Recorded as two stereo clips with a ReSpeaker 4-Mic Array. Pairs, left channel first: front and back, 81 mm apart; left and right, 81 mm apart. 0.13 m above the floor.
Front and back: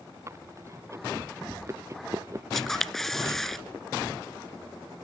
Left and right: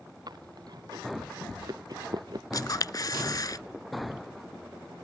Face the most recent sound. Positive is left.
turn(degrees=85)